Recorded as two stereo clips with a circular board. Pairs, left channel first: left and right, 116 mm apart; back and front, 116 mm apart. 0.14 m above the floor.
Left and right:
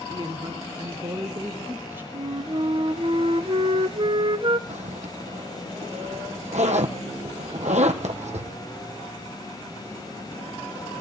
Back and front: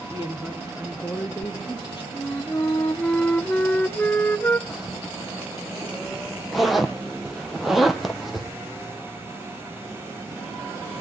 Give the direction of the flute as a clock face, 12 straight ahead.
4 o'clock.